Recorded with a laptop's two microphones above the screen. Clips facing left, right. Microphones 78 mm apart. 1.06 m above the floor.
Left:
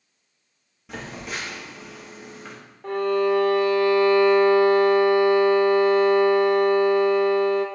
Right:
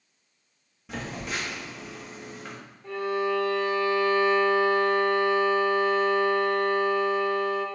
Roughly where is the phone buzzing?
Centre.